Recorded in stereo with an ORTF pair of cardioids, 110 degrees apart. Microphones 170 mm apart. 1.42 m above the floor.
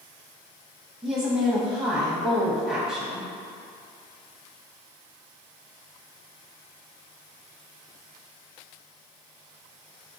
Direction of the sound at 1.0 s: Straight ahead.